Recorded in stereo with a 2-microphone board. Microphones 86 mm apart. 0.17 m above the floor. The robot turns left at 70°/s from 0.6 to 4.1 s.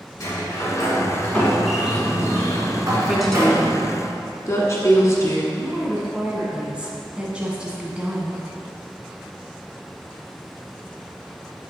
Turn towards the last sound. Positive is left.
turn(degrees=-10)  # may be behind; listen again after turning